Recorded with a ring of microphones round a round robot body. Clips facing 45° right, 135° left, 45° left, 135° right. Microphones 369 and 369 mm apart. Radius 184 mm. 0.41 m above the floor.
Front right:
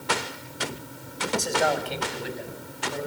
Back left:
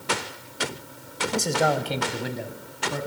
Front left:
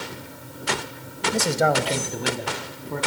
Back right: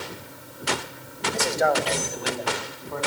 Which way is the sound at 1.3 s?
85° left.